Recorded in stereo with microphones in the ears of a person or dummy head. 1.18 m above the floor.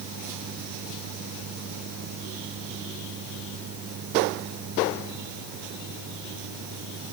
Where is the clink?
No clink in this recording.